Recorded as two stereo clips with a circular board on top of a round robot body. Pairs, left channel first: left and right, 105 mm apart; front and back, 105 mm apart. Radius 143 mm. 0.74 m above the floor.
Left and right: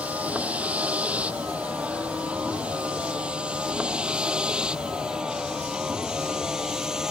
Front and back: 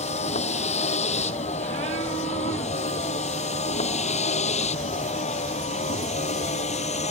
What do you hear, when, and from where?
0.0 s a vehicle: 10° right; by 7.1 s 5° right